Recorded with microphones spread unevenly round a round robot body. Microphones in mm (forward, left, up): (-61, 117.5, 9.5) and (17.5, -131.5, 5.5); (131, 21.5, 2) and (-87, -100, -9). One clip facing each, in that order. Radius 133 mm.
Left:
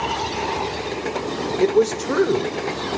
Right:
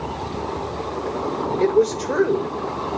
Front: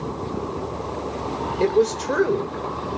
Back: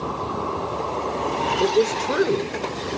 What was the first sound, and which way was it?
A man speaking, 140° left.